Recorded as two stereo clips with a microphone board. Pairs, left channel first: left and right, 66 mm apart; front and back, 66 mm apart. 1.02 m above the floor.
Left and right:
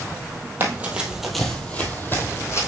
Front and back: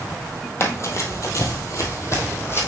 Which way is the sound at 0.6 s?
35° right.